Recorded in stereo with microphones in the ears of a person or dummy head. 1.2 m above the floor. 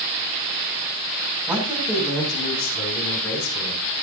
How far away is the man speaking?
About 7 m.